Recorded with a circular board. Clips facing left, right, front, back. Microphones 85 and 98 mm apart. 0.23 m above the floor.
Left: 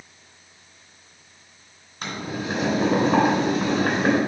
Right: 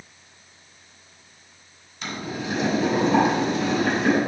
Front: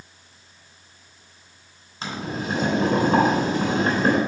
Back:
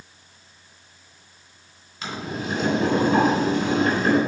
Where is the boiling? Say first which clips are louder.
Left 1 dB, front 1 dB; 55° left, 3 m.